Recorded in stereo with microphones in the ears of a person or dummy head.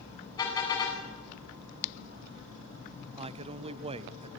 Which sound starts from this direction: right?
A man speaking, at 3.2 s.